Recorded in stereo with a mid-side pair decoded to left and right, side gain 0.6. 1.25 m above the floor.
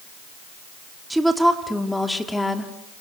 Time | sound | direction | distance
1.1 | a woman speaking | 5° right | 3.5 m